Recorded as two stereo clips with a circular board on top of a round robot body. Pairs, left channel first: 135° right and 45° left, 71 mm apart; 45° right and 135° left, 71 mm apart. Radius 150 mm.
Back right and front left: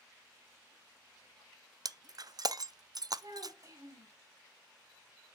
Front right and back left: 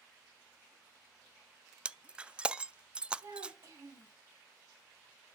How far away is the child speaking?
About 3.5 m.